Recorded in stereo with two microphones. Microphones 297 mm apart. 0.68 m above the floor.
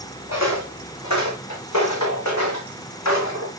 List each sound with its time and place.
0.3 s footsteps: 60° left (ahead or behind), 2.0 m; by 3.5 s 65° left (ahead or behind), 3 m